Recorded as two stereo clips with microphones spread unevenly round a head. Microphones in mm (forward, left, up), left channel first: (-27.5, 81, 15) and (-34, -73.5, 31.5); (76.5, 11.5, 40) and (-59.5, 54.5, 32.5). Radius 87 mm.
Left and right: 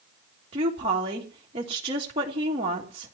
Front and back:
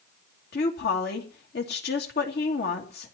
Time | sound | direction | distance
0.5 | a woman speaking | 30° right | 3 m